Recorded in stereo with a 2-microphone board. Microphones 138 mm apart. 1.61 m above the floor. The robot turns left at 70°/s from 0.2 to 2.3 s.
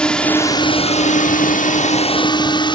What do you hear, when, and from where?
0.0 s a drone: 5° left (ahead or behind); by 2.8 s 35° left (ahead or behind)